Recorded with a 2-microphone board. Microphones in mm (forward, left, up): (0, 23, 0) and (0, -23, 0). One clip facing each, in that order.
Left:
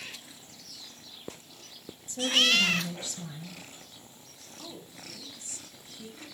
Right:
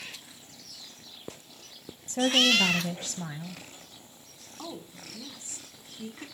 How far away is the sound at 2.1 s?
About 1.8 m.